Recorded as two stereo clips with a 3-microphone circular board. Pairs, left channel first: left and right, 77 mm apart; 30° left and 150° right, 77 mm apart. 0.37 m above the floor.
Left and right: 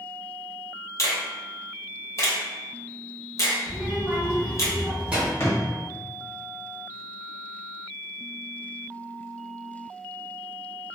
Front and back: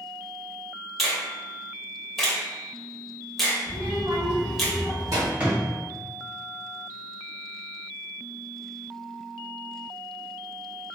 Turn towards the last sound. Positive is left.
turn(degrees=140)